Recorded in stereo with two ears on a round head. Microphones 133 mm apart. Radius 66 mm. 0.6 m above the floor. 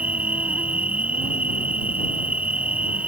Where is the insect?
10° right (ahead or behind).